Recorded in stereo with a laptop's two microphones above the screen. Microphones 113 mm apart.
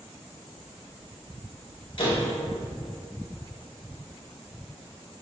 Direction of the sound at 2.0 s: 50° left (ahead or behind).